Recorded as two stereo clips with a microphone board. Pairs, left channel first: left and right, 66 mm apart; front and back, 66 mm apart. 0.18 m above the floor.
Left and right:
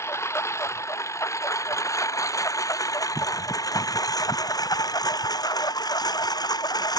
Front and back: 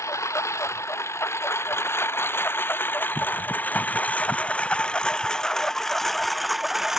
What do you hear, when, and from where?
0.0 s a lawn mower: 40° left; by 7.0 s 95° left